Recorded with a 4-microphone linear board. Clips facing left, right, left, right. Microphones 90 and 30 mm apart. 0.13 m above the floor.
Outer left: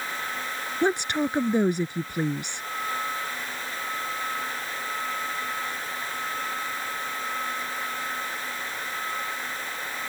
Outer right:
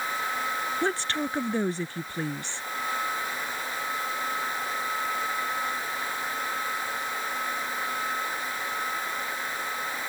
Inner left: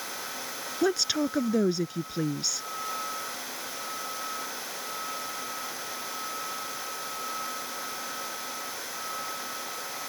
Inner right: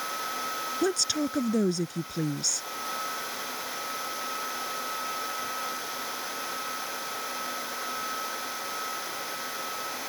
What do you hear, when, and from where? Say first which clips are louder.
0.8 s a woman speaking: outer left 8 dB, inner left 2 dB; 15° left (ahead or behind)